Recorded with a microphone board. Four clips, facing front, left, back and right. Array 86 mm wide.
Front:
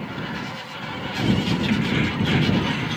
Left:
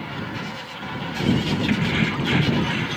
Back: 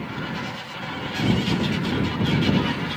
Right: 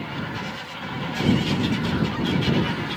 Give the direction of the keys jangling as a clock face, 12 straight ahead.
10 o'clock.